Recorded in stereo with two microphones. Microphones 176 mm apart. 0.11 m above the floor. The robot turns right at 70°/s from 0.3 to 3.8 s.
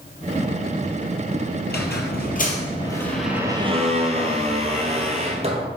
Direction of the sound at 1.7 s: 70° left.